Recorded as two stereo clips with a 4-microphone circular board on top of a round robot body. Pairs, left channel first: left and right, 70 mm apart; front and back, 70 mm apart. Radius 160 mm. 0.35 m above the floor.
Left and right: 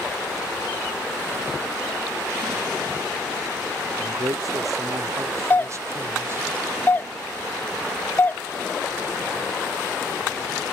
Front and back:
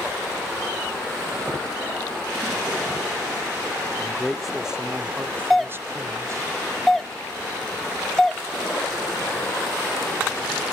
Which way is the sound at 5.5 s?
85° left.